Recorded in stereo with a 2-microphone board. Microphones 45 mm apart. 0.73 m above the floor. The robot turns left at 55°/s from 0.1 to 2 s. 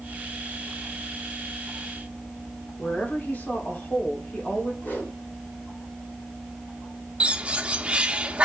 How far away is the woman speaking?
About 1.9 m.